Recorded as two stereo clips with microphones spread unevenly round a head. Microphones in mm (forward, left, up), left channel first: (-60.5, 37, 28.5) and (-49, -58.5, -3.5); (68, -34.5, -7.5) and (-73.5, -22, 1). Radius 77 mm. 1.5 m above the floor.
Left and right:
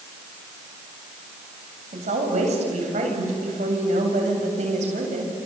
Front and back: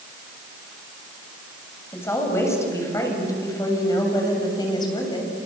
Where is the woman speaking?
80° right, 7 m; by 5.3 s 65° right, 7.5 m.